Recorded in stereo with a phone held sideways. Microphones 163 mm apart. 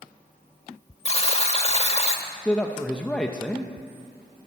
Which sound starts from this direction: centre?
A man speaking, at 2.5 s.